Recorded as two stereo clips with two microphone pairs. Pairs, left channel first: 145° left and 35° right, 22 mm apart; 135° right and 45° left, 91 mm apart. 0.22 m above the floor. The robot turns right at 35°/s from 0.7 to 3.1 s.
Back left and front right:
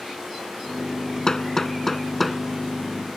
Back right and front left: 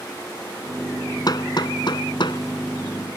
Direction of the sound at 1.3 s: 165° right.